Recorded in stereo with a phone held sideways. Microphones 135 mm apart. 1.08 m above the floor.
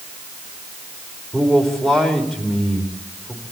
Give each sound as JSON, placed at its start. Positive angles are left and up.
{"t": 1.3, "sound": "a man speaking", "side_deg": 5, "distance_m": 4.0}